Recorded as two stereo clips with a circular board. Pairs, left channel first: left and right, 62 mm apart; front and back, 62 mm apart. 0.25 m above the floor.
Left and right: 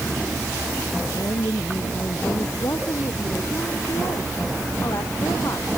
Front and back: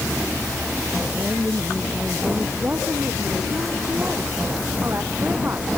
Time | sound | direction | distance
1.1 | a woman speaking | 120° left | ?